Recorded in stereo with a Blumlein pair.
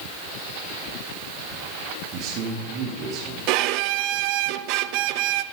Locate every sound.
2.1 s a man speaking: 40° right, 3.5 m
3.5 s a violin: 45° right, 0.7 m